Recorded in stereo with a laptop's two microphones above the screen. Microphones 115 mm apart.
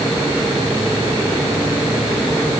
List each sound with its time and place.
Only background noise.